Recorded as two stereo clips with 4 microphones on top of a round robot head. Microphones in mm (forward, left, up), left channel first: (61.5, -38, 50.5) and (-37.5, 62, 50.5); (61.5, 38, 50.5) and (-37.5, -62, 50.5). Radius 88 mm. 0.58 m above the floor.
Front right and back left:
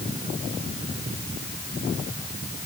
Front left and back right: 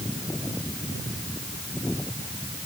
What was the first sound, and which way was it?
Only background noise.